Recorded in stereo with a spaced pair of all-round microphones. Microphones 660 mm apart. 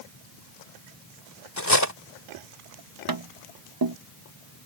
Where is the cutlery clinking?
25° left (ahead or behind).